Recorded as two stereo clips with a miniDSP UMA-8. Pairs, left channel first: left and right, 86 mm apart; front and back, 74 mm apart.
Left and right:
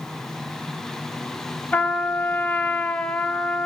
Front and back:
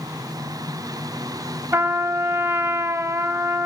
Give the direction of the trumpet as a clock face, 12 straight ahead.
7 o'clock.